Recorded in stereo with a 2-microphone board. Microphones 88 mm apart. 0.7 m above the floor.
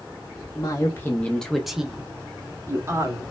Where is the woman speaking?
40° left (ahead or behind), 0.8 m; by 3.2 s 35° right (ahead or behind), 1.3 m.